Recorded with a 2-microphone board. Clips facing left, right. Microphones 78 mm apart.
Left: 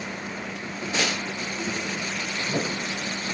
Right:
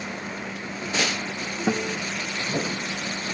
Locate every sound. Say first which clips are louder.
1.7 s a guitar: right 9 dB; 70° right (ahead or behind)